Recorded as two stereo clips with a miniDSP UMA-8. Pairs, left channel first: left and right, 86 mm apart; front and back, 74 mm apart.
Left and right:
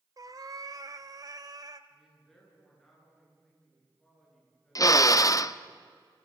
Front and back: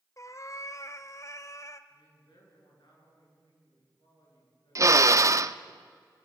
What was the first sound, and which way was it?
A cat meowing, 45° right.